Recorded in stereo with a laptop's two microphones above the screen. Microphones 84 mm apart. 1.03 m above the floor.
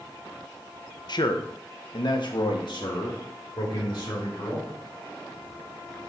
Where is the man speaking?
55° left (ahead or behind), 0.6 m.